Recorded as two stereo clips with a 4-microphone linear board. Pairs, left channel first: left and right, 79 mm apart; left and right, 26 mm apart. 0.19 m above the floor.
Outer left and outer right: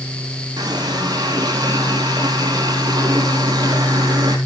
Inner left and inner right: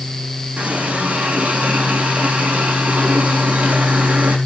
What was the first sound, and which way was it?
A running tap, 70° right (ahead or behind).